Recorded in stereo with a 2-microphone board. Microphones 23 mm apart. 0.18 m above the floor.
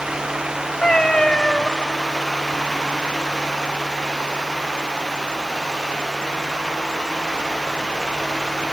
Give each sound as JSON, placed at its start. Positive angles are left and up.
{"t": 0.8, "sound": "a cat meowing", "side_deg": 45, "distance_m": 1.3}